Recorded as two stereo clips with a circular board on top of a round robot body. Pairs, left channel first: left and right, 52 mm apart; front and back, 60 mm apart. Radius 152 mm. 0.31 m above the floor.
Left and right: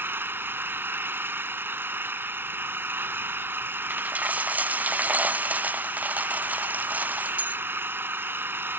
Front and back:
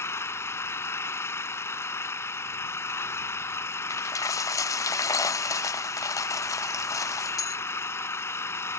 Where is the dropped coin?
30° right.